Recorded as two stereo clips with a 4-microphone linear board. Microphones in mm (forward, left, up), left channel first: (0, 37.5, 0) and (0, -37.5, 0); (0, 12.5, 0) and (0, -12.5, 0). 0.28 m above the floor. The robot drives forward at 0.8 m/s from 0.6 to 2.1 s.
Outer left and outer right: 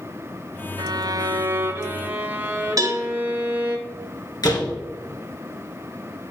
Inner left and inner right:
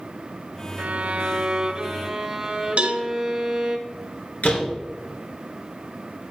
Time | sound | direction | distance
0.8 | a violin | 65° right (ahead or behind) | 0.5 m
2.8 | a cowbell | 55° right (ahead or behind) | 1.4 m
4.4 | a door slam | 65° left (ahead or behind) | 2.5 m